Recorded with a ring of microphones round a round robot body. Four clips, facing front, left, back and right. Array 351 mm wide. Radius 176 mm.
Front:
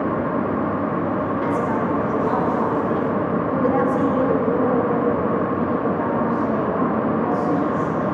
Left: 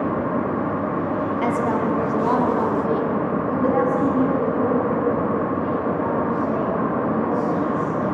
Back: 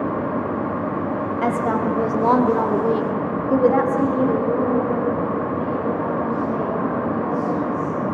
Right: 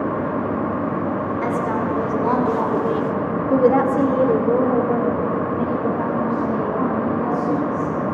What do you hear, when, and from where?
1.4 s a woman speaking: 165° left, 3.5 m; by 8.0 s 55° right, 6.5 m